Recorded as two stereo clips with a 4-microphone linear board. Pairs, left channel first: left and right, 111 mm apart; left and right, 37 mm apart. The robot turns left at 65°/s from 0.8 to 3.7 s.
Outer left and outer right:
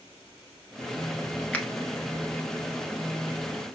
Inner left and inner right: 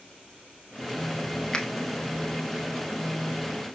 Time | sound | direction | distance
1.5 | a finger snap | 10° left (ahead or behind) | 0.9 m